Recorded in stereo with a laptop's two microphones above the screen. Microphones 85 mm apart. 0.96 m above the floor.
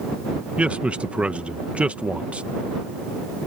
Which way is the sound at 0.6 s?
15° right (ahead or behind).